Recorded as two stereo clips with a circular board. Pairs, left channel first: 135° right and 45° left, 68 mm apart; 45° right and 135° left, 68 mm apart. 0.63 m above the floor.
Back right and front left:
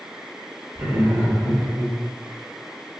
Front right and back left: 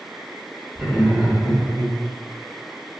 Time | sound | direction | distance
0.8 | laughter | 65° left | 1.9 m